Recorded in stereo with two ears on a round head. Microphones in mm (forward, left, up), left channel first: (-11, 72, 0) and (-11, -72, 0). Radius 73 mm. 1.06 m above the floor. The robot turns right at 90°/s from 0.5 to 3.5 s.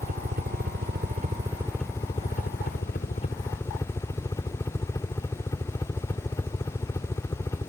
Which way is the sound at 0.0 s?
115° right.